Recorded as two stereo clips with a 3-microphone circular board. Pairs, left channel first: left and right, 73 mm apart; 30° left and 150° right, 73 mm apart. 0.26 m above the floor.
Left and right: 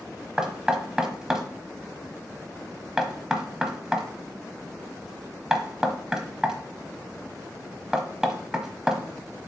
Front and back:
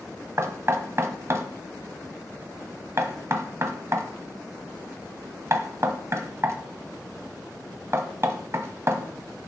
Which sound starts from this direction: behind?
Knocking, at 0.4 s.